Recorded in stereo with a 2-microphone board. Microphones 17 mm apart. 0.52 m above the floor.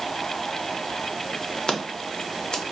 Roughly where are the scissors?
Left.